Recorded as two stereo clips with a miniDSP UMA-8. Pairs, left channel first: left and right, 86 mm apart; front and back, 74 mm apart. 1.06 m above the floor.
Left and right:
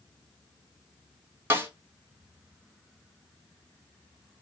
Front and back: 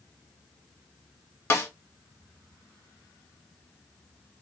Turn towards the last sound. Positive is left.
turn(degrees=-35)